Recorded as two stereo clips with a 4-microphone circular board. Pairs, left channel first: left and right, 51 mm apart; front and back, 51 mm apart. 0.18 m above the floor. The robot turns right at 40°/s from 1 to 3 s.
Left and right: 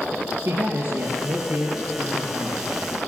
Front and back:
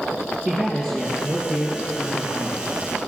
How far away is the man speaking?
About 3 m.